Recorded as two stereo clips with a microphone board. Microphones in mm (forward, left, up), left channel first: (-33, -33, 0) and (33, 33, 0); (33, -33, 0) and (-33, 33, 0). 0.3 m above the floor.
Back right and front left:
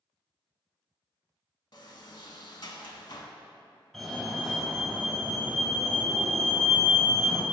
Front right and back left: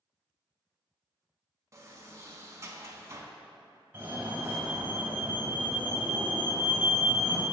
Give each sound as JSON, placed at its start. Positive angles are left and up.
{"t": 1.7, "sound": "a sliding door", "azimuth_deg": -170, "distance_m": 0.6}
{"t": 3.9, "sound": "a fire alarm", "azimuth_deg": 150, "distance_m": 1.9}